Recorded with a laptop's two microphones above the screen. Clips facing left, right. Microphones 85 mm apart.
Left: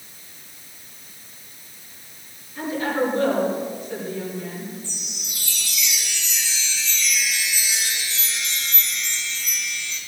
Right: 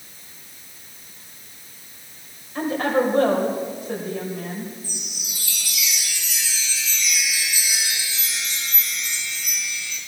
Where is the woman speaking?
75° right (ahead or behind), 4 m.